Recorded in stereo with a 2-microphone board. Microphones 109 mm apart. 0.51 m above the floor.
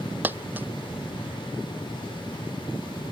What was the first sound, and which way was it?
A dropped coin, 15° right (ahead or behind).